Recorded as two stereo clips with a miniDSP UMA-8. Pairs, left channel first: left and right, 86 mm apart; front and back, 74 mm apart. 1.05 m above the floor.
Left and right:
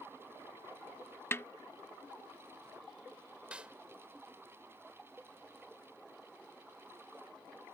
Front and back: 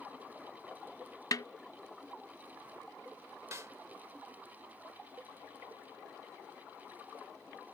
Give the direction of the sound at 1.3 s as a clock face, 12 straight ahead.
11 o'clock.